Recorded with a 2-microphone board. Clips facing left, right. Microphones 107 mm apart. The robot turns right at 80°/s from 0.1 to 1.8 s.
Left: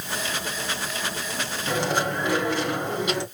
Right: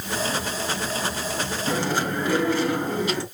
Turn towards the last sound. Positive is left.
turn(degrees=15)  # may be behind; listen again after turning